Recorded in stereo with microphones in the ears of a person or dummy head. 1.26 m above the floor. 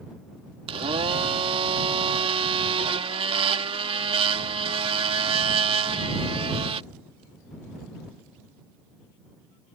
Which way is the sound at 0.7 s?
25° right (ahead or behind).